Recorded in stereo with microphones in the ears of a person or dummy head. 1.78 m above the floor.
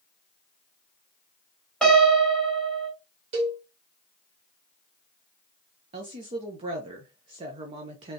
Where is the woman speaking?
35° right (ahead or behind), 0.9 m.